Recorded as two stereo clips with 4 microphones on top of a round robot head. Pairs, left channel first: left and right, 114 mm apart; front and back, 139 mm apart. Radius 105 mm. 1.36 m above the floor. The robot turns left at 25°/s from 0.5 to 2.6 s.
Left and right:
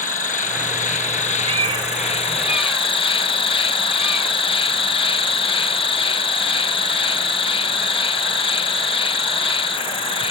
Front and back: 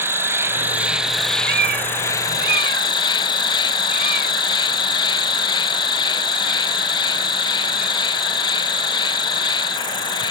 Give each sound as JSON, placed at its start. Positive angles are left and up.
{"t": 0.0, "sound": "an insect", "azimuth_deg": 110}
{"t": 1.4, "sound": "a cat meowing", "azimuth_deg": -145}